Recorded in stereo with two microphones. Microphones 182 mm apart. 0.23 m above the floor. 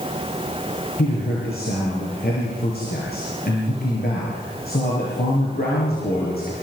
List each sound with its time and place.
1.0 s a man speaking: 60° left (ahead or behind), 7 m